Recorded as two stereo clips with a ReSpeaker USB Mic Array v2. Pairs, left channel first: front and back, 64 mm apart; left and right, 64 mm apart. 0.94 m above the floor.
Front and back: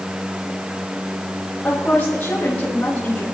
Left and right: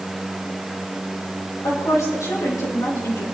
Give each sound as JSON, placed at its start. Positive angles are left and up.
{"t": 1.6, "sound": "a woman speaking", "azimuth_deg": 70, "distance_m": 5.0}